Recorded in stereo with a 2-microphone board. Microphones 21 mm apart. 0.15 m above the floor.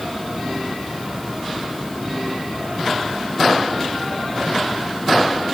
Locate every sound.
Only background noise.